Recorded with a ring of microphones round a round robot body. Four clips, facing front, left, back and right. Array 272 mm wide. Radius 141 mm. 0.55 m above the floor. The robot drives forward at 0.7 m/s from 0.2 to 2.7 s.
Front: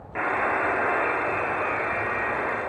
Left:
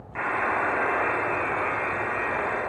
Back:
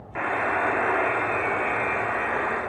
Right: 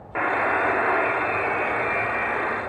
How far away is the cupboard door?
I don't hear a cupboard door.